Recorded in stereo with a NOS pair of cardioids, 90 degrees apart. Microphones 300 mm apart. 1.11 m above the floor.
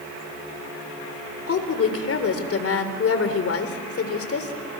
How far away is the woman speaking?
About 4 m.